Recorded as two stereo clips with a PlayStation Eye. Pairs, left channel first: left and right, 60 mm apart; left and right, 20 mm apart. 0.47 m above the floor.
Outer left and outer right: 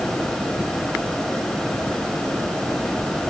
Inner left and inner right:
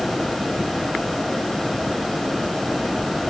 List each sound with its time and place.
Only background noise.